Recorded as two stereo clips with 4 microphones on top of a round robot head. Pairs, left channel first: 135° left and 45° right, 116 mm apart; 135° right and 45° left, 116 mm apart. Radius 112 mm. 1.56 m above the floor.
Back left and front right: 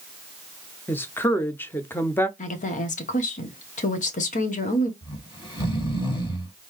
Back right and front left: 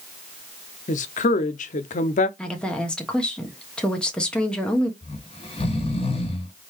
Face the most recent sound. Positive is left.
turn(degrees=-175)